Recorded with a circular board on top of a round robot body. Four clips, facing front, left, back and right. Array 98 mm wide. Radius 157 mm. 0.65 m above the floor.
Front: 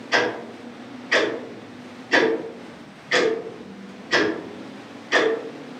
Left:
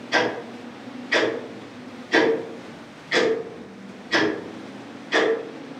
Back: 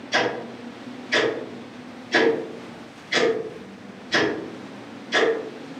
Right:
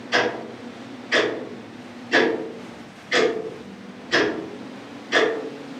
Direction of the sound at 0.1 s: 5° left.